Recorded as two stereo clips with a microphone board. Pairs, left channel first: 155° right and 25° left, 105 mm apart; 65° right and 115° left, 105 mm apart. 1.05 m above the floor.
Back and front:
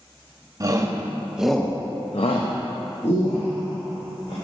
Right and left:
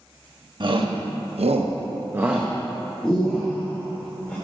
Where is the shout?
75° left, 1.3 m; by 4.3 s 140° right, 2.5 m.